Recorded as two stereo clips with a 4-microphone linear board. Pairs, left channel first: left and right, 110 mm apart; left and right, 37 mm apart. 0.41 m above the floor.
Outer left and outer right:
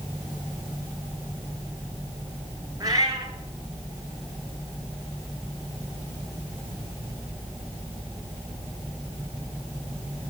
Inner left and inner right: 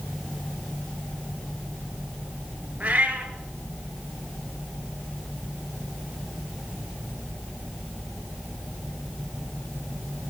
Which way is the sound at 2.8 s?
35° right (ahead or behind).